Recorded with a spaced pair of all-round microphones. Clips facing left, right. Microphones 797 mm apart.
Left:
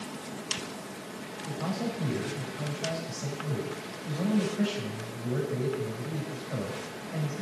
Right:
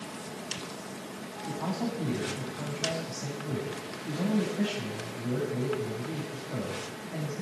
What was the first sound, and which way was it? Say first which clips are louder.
A man speaking: even; 5° left (ahead or behind).